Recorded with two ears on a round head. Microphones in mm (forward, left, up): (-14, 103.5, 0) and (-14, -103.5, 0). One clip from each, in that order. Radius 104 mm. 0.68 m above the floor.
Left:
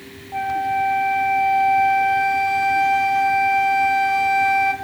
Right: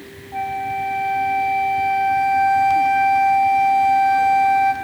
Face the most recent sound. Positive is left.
turn(degrees=0)  # may be behind; listen again after turning